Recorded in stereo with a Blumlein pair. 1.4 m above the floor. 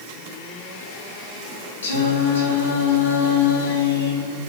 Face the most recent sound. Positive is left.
turn(degrees=65)